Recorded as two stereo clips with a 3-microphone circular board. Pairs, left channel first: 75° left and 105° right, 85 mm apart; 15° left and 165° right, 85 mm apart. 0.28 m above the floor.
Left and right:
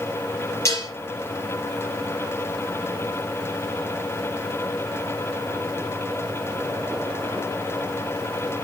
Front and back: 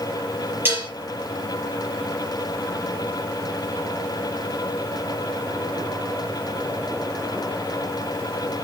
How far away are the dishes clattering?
About 4 m.